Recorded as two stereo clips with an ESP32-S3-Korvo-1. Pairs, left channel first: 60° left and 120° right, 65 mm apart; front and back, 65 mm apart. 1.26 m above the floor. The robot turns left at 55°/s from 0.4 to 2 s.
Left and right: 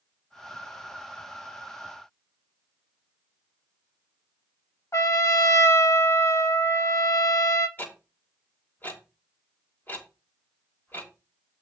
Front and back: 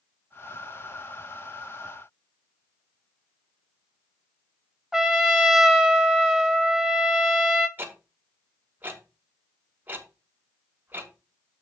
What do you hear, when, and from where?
4.9 s a trumpet: 95° left, 0.8 m
7.8 s ticking: 120° left, 1.7 m